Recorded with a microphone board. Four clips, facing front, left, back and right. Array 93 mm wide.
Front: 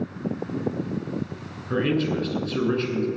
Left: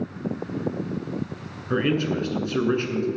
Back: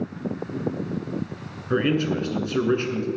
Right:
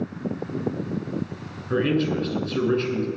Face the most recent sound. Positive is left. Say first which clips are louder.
# right 1 dB, back 1 dB
turn(degrees=140)